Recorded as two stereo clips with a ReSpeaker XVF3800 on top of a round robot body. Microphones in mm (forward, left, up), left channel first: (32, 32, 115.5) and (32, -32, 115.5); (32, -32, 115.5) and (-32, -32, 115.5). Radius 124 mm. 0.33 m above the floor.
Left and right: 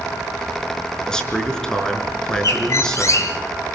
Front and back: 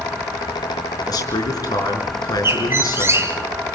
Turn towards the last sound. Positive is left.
turn(degrees=130)